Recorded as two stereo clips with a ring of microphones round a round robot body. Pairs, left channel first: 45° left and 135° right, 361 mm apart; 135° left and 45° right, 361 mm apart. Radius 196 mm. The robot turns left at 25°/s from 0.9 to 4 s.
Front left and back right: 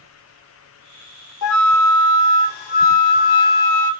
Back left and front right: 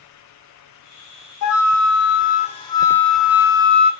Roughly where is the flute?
Left.